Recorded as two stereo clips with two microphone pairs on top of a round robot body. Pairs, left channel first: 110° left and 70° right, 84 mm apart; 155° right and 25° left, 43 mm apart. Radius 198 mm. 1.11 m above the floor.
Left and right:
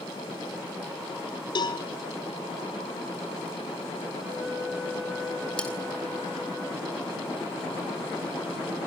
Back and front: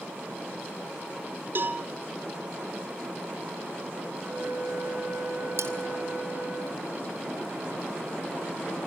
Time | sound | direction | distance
1.6 | a cowbell | 70° left | 1.4 m
4.2 | a flute | 5° left | 6.5 m
5.6 | cutlery clinking | 30° left | 3.5 m